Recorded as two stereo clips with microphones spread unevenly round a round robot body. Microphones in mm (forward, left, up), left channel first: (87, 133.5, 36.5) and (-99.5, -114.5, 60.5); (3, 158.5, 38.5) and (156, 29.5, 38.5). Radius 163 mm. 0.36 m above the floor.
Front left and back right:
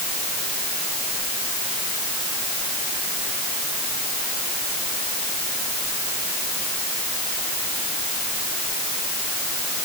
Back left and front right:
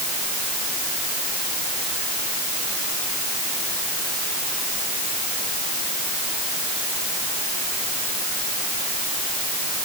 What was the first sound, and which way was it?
Only background noise.